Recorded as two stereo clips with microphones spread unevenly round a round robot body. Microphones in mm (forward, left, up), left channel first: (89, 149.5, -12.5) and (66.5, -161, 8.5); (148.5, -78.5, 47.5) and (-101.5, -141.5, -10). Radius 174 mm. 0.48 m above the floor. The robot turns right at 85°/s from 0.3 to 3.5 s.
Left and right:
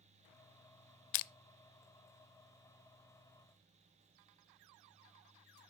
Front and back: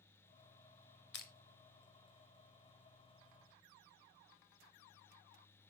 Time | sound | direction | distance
1.1 | crushing | 75° left | 0.5 m